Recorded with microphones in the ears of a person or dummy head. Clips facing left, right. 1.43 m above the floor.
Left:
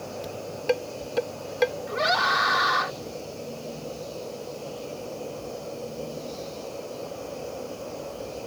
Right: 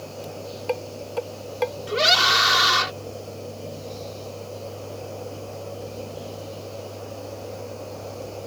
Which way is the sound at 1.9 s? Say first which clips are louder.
Right 2 dB; 45° right (ahead or behind).